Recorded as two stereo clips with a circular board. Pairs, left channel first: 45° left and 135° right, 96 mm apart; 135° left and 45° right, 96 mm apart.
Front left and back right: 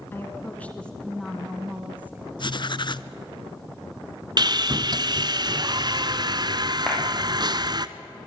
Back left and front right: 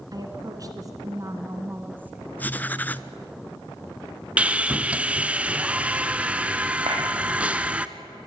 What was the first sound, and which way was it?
A woman speaking, 15° right.